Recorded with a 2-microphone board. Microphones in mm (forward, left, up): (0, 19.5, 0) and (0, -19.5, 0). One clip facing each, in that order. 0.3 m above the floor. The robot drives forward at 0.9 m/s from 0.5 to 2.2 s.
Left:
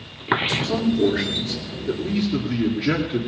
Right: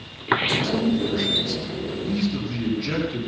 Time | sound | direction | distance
0.6 | a man speaking | 65° left (ahead or behind) | 4 m